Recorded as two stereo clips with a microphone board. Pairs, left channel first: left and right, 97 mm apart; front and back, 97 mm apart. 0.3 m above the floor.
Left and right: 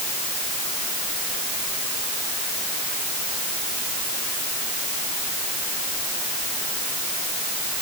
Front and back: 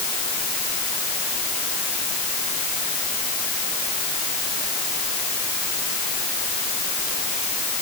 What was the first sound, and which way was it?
Only background noise.